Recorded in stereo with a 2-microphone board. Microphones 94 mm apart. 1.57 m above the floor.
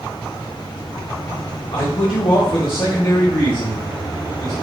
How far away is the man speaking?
About 1.2 m.